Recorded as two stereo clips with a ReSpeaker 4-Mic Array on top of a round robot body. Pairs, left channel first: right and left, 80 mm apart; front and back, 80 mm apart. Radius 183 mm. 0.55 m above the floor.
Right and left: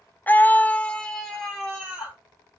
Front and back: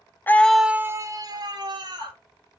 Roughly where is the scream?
Ahead right.